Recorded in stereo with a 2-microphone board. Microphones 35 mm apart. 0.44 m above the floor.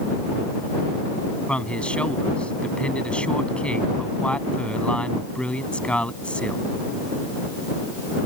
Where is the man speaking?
30° left (ahead or behind).